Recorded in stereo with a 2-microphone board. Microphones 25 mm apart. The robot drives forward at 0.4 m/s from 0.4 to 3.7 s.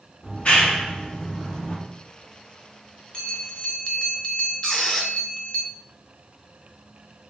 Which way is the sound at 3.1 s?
40° left (ahead or behind).